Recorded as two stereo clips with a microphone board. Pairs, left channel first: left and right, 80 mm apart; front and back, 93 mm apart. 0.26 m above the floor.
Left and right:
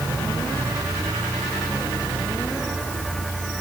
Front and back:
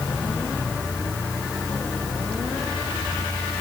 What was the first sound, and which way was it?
Only background noise.